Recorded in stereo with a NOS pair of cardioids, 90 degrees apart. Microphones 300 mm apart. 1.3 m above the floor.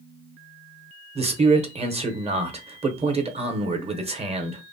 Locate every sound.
1.1 s a man speaking: 20° right, 0.8 m